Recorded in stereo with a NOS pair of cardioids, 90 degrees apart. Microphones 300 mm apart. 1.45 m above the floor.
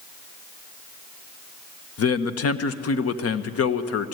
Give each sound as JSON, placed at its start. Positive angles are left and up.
{"t": 2.0, "sound": "a man speaking", "azimuth_deg": 55, "distance_m": 1.2}